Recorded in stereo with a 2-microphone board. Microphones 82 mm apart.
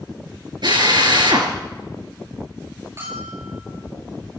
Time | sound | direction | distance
0.6 | a drill | 65° right (ahead or behind) | 3.5 m
3.0 | a bell | 40° right (ahead or behind) | 7.5 m